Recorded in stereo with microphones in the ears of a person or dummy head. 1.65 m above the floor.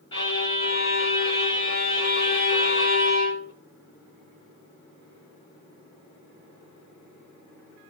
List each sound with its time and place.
0.1 s a violin: 20° left (ahead or behind), 1.8 m